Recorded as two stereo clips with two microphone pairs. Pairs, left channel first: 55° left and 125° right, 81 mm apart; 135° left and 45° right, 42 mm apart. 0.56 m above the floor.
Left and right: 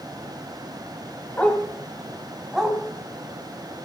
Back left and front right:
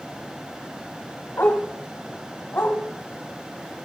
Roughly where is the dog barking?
Behind left.